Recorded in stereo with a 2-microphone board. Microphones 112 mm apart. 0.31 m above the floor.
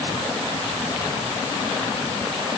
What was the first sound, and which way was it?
Only background noise.